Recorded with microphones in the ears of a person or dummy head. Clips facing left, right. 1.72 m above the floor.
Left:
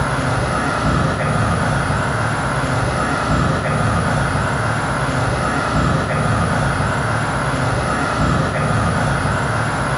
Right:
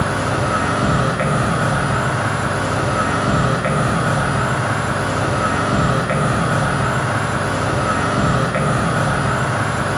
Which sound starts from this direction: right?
An insect, at 0.0 s.